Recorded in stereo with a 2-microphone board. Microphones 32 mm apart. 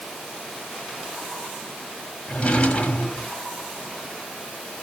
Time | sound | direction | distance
2.3 | a drawer | 40° left (ahead or behind) | 1.4 m